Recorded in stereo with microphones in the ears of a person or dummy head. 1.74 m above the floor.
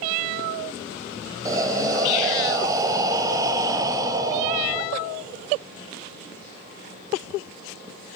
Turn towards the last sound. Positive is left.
turn(degrees=-15)  # may be behind; listen again after turning